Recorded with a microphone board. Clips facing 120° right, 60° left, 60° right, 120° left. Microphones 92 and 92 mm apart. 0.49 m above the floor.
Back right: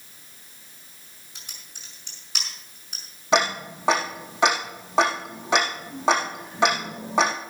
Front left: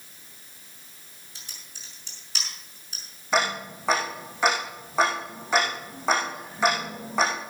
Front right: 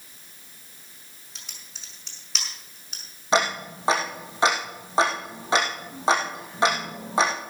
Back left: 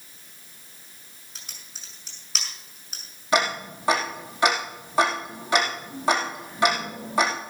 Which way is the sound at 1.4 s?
155° right.